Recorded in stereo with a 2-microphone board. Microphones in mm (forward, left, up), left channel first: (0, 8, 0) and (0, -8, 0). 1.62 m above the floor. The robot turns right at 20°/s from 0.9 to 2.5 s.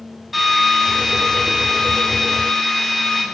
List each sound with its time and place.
0.3 s a drill: 10° right, 6 m; by 3.2 s 25° left, 6 m